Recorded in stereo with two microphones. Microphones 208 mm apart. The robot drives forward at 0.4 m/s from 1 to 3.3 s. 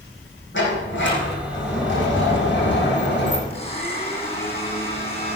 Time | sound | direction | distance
0.5 | a sliding door | 65° left (ahead or behind) | 6 m
3.5 | a blender | 30° left (ahead or behind) | 4.5 m